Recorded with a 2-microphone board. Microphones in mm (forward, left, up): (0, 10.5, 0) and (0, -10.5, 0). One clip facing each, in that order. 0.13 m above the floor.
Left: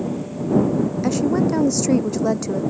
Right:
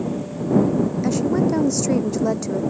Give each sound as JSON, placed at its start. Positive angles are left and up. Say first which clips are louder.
{"t": 1.0, "sound": "a woman speaking", "louder": "left 2 dB", "side_deg": 5}